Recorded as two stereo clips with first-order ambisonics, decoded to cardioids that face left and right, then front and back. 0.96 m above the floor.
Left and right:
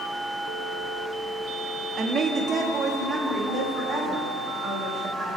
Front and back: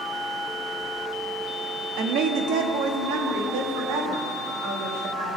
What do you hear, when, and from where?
2.0 s a woman speaking: 155° right, 1.1 m; by 5.4 s 175° left, 4 m